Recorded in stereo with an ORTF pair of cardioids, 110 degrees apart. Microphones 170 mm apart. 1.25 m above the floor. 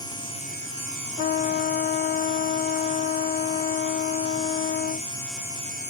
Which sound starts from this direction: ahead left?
A trumpet, at 1.2 s.